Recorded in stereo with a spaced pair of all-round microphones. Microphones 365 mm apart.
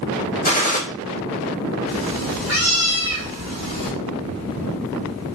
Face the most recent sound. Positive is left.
turn(degrees=-50)  # may be behind; listen again after turning